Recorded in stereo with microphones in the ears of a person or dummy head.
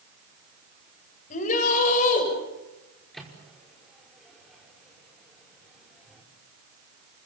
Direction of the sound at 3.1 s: Centre (ahead or behind).